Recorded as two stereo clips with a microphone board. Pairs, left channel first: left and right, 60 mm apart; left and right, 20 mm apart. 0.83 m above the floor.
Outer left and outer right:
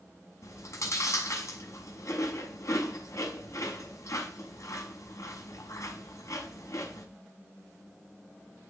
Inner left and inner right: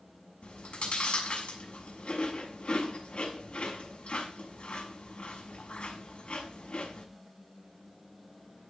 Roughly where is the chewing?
Left.